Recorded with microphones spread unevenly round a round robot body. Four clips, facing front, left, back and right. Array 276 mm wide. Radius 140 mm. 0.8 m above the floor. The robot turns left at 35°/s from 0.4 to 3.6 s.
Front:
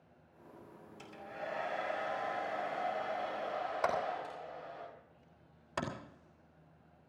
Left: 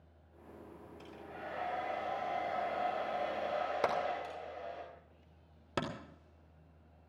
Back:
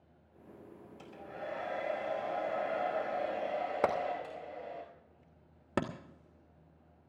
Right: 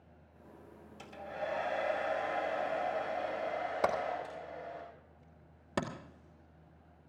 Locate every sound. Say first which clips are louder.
1.0 s a hair dryer: right 7 dB, even; 105° right, 5 m; by 4.8 s 160° left, 5 m
3.8 s hammering: right 1 dB, back 2 dB; 175° right, 2.5 m